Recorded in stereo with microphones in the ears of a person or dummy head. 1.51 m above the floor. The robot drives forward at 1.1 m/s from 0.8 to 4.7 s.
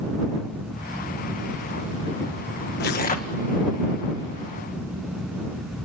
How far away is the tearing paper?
About 1.7 m.